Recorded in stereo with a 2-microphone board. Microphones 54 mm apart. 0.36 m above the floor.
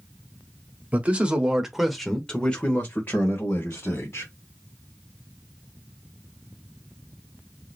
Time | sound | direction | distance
0.9 | a man speaking | 30° right (ahead or behind) | 1.1 m